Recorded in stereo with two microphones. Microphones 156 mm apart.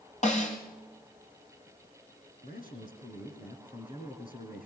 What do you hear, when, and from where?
0.2 s a snare drum: 50° left (ahead or behind), 5 m
2.4 s a man speaking: 70° left (ahead or behind), 7 m